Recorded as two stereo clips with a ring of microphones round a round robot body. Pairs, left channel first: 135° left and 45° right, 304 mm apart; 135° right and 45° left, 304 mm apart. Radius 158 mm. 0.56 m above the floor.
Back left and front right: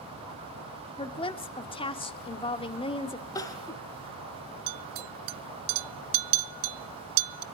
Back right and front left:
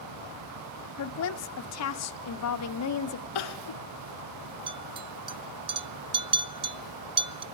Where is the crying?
145° right, 1.4 m.